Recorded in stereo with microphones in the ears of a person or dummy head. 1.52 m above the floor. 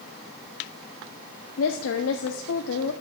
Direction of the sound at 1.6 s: 75° left (ahead or behind).